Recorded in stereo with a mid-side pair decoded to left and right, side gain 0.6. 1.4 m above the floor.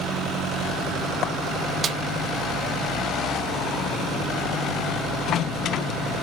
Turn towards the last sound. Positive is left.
turn(degrees=-40)